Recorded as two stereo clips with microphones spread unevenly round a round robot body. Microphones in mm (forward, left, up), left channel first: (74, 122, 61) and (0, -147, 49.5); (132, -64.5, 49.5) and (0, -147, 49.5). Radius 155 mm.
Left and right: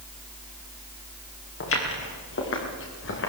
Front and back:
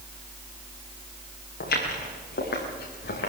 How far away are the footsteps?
About 7 m.